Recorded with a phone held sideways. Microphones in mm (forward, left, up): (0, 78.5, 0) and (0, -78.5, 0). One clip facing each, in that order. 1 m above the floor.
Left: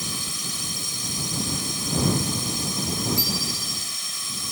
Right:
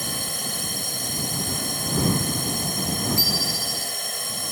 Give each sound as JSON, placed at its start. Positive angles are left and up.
{"t": 0.0, "sound": "a drone", "side_deg": -55}
{"t": 3.2, "sound": "a bicycle bell", "side_deg": 20}